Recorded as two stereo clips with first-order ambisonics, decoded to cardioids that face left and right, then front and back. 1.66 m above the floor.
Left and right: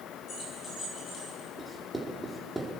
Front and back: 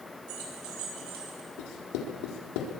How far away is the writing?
About 4 m.